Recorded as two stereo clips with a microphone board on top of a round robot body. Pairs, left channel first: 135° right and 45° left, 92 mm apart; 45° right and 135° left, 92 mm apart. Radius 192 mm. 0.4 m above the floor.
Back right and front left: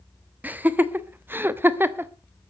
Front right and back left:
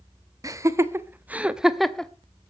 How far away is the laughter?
About 1.6 m.